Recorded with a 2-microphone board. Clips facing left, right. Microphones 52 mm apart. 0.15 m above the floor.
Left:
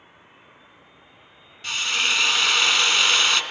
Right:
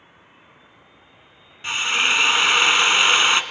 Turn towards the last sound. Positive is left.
turn(degrees=-25)  # may be behind; listen again after turning